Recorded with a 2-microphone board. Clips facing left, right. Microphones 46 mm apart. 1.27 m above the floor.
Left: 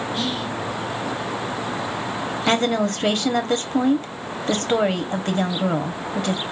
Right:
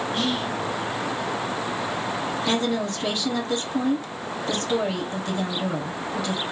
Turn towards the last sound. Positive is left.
turn(degrees=55)  # may be behind; listen again after turning